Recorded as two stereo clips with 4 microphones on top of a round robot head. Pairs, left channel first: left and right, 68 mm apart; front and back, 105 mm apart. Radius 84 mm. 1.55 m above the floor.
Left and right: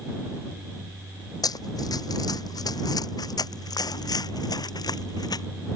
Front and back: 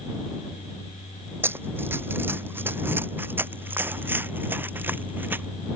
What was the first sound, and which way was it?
Running footsteps, 110° left.